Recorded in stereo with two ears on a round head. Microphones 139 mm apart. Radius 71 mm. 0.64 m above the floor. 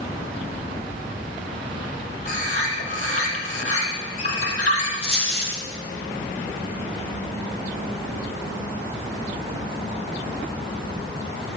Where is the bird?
50° left (ahead or behind), 4 m.